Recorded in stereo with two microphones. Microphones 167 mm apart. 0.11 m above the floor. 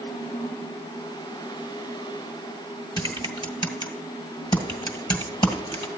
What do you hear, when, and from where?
3.0 s typing on a keyboard: 25° left (ahead or behind), 1.5 m